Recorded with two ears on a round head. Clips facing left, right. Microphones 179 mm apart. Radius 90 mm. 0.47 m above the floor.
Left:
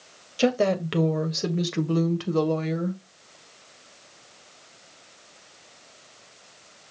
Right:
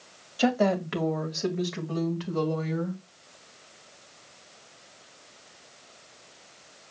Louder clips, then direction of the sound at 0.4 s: Left 2 dB; 35° left (ahead or behind).